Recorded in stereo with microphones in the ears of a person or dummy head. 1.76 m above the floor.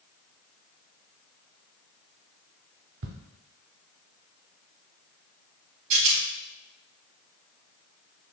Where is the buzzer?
I don't hear a buzzer.